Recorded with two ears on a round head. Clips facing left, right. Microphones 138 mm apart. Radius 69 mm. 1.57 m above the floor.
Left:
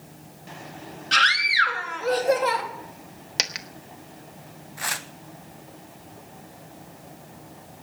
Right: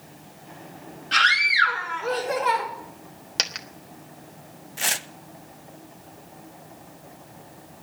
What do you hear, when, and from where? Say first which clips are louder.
1.1 s a scream: even; 50° left (ahead or behind), 3.5 m
3.4 s a dropped coin: even; 5° left (ahead or behind), 1.0 m
4.8 s tearing paper: right 1 dB; 30° right (ahead or behind), 0.6 m